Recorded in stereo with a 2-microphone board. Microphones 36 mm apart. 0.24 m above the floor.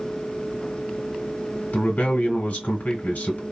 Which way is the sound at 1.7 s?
55° left (ahead or behind).